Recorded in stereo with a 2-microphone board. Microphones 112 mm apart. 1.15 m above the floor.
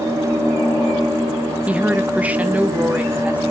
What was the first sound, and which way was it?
A woman speaking, 10° right (ahead or behind).